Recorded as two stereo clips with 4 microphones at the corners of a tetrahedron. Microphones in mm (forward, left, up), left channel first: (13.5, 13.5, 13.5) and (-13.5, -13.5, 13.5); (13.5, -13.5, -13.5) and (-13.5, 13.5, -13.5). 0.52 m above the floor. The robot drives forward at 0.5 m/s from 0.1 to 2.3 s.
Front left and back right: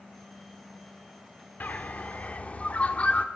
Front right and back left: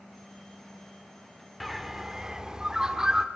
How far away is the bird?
About 1.1 m.